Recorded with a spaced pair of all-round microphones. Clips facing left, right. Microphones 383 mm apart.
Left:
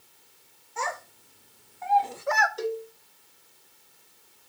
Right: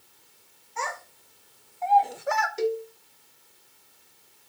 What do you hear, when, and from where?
0.8 s a child speaking: 55° left (ahead or behind), 1.6 m; by 2.5 s 10° right (ahead or behind), 0.9 m
2.6 s a cowbell: 40° right (ahead or behind), 1.1 m